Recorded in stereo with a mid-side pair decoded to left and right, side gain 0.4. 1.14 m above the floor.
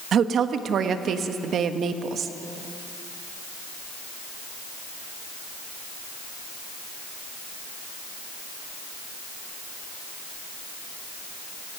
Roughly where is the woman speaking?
Ahead right.